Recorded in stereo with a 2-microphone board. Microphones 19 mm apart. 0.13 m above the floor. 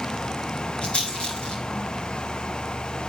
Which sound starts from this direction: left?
A rattle, at 0.8 s.